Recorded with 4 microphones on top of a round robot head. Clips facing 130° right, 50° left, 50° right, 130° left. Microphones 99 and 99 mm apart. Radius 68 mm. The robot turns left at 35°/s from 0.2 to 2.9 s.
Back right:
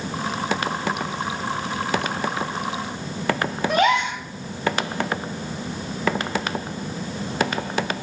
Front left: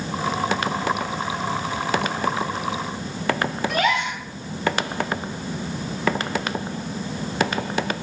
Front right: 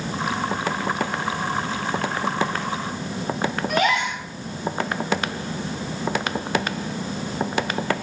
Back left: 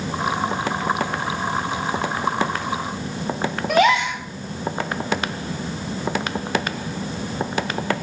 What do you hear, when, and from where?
3.7 s a gasp: 160° left, 1.0 m